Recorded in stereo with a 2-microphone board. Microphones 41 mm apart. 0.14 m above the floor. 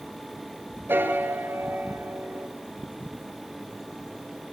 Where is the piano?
60° right (ahead or behind), 2.5 m.